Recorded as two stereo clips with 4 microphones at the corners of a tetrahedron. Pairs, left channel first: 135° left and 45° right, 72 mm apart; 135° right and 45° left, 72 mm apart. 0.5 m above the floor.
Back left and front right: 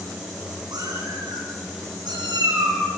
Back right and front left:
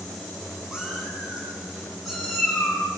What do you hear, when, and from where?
0.7 s a cat meowing: 35° right, 9 m; by 2.8 s 50° right, 9.5 m